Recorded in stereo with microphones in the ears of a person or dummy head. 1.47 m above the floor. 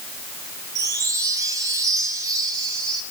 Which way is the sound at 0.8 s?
20° right (ahead or behind).